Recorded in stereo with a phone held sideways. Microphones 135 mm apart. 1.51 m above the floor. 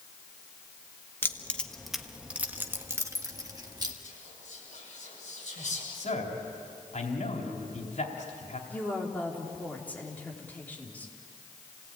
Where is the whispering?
65° left (ahead or behind), 8 m.